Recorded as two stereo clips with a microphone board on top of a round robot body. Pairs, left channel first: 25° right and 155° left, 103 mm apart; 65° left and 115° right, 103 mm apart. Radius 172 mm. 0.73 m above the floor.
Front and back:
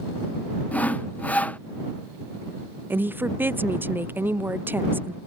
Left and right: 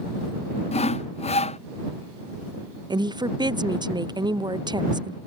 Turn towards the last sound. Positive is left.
turn(degrees=-135)